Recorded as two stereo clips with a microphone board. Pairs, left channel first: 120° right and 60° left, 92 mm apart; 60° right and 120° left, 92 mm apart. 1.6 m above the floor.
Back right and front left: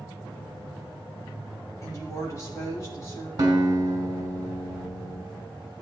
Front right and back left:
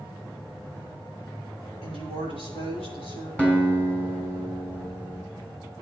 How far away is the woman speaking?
About 4 m.